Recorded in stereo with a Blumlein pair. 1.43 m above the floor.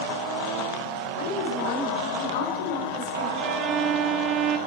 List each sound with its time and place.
1.2 s a woman speaking: 55° left, 7 m
3.4 s a violin: 30° right, 2 m